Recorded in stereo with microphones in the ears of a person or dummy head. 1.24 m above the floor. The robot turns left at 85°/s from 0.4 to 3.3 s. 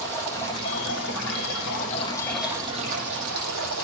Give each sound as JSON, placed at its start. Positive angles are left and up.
{"t": 0.0, "sound": "running water", "azimuth_deg": 170, "distance_m": 8.0}